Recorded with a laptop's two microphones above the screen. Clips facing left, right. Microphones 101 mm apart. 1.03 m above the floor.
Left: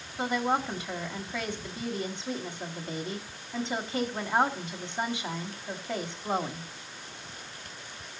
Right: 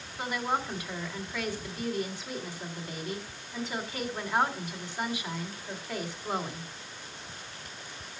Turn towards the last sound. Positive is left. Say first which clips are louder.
# left 3 dB
turn(degrees=25)  # may be behind; listen again after turning